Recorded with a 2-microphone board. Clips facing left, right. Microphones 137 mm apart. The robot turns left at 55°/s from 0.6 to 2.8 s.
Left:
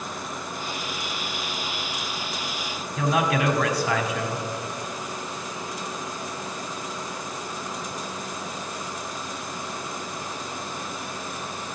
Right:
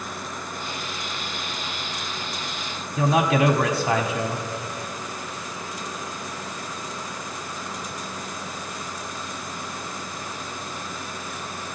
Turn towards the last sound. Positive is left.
turn(degrees=-30)  # may be behind; listen again after turning